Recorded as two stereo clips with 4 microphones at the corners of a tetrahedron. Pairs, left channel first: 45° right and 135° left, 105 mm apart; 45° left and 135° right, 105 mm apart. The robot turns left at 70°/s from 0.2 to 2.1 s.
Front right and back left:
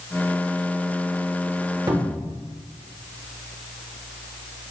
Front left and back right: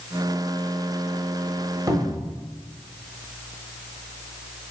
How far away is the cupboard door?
About 0.5 m.